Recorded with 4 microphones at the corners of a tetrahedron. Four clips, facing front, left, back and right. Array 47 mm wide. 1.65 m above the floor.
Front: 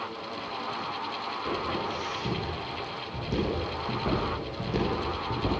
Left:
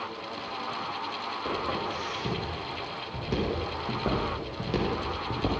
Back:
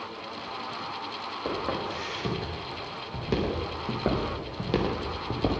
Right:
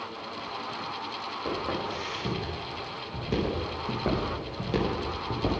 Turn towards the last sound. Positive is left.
turn(degrees=180)